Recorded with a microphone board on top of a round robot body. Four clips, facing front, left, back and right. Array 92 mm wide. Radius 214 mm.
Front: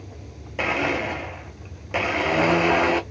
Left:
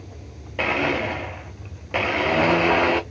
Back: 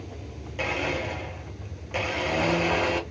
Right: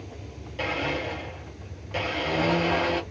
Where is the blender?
55° left, 1.3 m.